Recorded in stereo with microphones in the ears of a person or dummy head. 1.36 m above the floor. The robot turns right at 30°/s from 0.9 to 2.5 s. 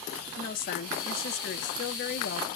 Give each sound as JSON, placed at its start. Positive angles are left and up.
{"t": 0.4, "sound": "a woman speaking", "azimuth_deg": 60, "distance_m": 0.6}